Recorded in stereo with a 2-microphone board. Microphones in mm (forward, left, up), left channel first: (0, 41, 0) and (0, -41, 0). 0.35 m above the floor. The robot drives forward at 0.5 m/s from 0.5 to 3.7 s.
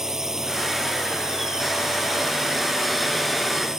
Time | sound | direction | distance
0.0 | a drone | 5° right (ahead or behind) | ?